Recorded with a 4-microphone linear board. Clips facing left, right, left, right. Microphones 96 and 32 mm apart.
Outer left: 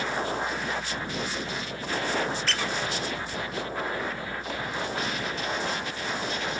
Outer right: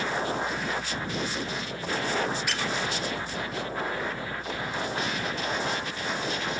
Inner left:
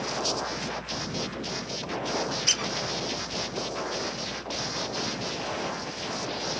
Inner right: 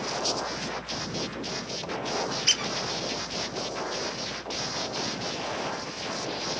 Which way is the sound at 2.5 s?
15° right (ahead or behind).